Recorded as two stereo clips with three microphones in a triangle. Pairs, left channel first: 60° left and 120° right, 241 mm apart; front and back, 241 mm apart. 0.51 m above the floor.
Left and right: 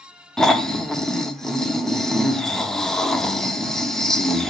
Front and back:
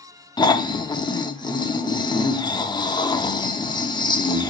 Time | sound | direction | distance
0.4 | snoring | 25° right | 0.7 m